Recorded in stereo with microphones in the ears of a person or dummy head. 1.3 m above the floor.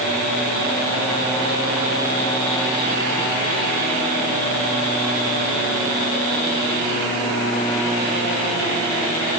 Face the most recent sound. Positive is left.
No sound to turn to.